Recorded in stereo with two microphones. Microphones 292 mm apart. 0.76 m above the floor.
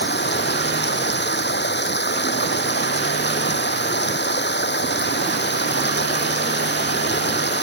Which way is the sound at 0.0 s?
35° left (ahead or behind).